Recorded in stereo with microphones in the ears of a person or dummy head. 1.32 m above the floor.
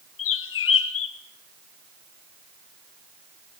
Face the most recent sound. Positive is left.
turn(degrees=70)  # may be behind; listen again after turning